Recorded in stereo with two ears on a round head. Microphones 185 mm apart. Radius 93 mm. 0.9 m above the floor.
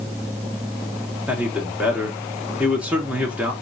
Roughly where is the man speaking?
Centre.